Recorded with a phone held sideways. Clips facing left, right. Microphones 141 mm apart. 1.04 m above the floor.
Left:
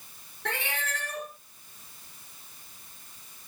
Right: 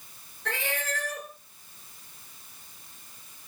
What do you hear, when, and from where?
0.5 s a cat meowing: 60° left (ahead or behind), 5 m